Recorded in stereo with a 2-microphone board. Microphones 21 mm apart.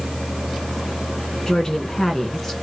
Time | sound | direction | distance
1.5 | a woman speaking | 40° left (ahead or behind) | 2 m